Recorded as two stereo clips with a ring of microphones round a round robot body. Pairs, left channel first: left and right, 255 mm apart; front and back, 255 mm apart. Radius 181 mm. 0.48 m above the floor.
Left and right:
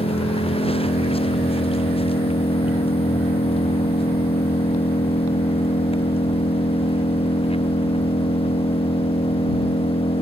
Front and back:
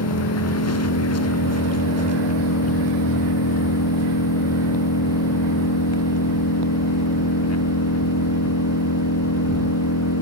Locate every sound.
0.0 s an engine running: 20° left